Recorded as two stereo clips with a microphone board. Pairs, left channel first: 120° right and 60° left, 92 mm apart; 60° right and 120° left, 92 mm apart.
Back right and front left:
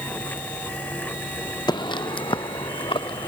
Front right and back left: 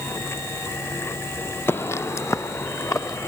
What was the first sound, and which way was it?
Footsteps, 115° right.